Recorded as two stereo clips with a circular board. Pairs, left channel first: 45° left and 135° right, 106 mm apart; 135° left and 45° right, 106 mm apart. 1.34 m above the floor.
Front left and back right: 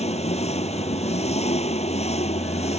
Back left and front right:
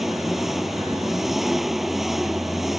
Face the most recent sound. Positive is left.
turn(degrees=45)